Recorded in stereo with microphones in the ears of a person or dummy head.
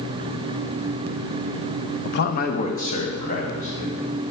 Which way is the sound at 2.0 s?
55° left (ahead or behind).